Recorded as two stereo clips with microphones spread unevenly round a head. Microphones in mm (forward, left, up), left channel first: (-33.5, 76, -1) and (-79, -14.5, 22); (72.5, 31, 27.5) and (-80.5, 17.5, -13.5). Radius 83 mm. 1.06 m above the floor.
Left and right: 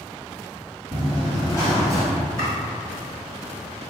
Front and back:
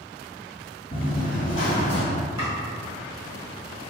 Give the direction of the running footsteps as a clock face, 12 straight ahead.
1 o'clock.